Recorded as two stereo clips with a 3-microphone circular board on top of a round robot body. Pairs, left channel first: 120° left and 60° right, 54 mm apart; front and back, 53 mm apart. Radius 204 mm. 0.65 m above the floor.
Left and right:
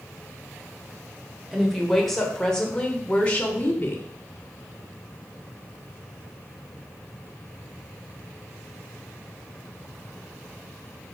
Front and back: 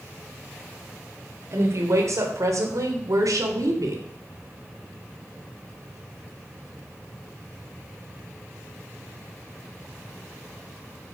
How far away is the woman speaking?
About 3 m.